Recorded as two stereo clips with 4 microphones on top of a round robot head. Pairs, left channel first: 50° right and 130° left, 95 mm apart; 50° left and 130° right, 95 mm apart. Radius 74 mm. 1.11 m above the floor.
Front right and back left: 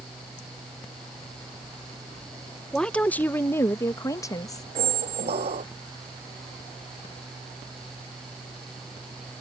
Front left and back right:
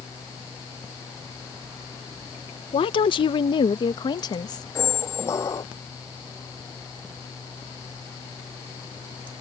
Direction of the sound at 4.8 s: 110° left.